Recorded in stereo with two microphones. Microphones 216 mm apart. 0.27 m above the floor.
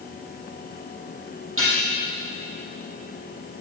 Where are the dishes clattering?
75° right (ahead or behind), 5.5 m.